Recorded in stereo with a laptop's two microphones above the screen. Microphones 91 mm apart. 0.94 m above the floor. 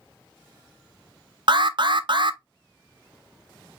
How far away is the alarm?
About 0.7 m.